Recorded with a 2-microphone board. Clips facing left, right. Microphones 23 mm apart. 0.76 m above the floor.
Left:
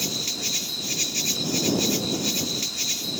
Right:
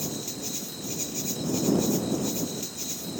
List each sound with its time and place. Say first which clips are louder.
0.0 s an insect: left 7 dB; 70° left (ahead or behind)